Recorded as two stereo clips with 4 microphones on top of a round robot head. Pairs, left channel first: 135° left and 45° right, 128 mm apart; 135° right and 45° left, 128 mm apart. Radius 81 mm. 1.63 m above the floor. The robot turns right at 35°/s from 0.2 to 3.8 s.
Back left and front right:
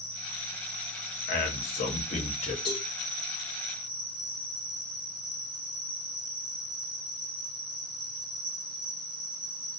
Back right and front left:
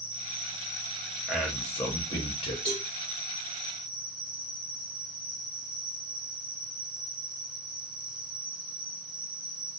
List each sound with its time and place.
0.0 s an insect: 165° right, 2 m; by 9.8 s 40° right, 2 m
1.3 s a man speaking: 135° left, 0.8 m; by 2.5 s straight behind, 0.8 m
2.6 s a cowbell: 155° left, 1.5 m; by 2.9 s 165° left, 1.5 m